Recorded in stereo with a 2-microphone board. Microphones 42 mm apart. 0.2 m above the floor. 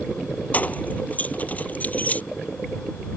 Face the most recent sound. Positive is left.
turn(degrees=35)  # may be behind; listen again after turning